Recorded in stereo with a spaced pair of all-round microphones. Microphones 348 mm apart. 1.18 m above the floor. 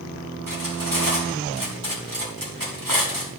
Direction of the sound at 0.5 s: 70° right (ahead or behind).